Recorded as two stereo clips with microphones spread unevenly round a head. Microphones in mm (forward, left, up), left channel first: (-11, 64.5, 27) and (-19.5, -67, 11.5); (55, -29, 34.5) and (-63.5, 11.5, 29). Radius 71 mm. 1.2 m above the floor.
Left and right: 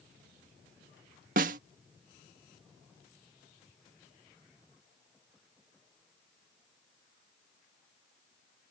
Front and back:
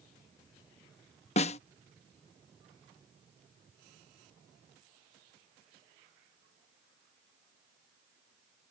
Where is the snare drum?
60° right.